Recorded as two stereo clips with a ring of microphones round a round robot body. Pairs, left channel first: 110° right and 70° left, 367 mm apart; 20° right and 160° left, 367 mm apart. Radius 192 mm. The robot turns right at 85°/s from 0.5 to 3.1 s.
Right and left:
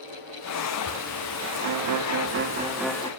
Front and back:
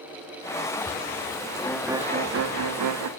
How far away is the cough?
I don't hear a cough.